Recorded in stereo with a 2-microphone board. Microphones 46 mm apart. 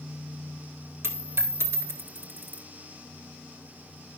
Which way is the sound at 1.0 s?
70° right (ahead or behind).